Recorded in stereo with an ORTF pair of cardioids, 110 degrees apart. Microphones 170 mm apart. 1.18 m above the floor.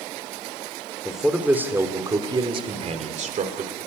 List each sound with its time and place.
1.1 s a man speaking: straight ahead, 3 m; by 3.7 s 50° right, 3 m